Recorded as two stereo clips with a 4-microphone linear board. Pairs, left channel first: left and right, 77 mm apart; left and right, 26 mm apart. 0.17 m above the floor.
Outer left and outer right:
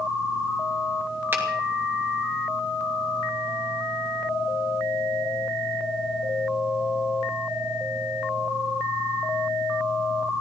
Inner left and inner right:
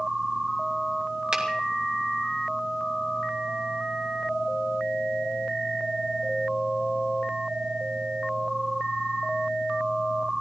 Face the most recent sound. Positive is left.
turn(degrees=-30)  # may be behind; listen again after turning